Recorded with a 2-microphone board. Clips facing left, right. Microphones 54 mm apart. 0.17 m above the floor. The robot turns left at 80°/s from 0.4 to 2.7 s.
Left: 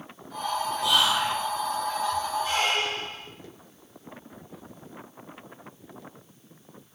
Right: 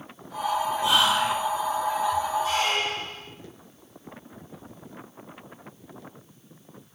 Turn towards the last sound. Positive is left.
turn(degrees=15)  # may be behind; listen again after turning